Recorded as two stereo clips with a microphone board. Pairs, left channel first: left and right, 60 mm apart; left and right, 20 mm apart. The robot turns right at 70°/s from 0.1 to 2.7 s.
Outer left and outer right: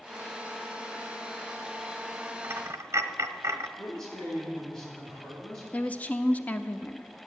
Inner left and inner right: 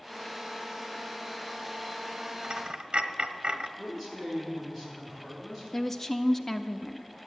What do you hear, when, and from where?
2.4 s a dropped coin: 30° right (ahead or behind), 1.2 m; by 3.7 s 50° right (ahead or behind), 1.2 m
3.8 s a man speaking: 10° left (ahead or behind), 6 m
5.7 s a woman speaking: 20° left (ahead or behind), 0.7 m